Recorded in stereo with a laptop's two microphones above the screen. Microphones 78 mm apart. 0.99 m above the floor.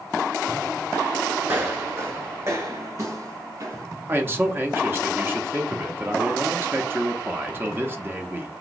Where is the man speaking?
25° right (ahead or behind), 0.8 m.